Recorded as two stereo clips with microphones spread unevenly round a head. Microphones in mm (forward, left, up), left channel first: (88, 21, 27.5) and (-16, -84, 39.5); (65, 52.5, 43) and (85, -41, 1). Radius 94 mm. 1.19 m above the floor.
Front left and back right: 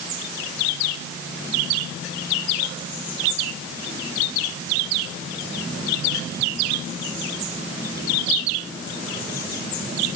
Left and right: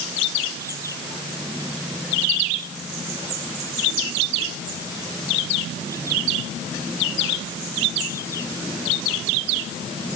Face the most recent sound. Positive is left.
No sound to turn to.